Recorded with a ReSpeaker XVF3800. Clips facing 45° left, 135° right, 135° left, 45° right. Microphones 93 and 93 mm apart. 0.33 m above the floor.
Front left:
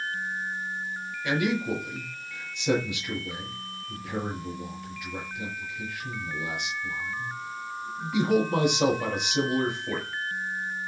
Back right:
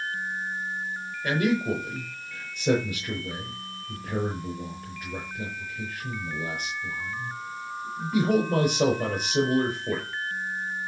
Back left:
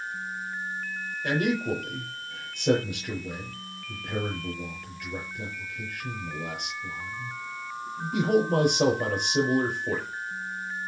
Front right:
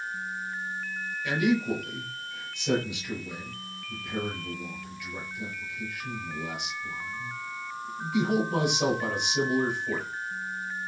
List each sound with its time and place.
1.2 s a man speaking: 175° left, 6 m